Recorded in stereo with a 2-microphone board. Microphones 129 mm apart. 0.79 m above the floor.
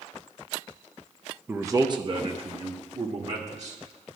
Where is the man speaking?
15° right (ahead or behind), 0.6 m; by 3.8 s 60° right (ahead or behind), 1.5 m.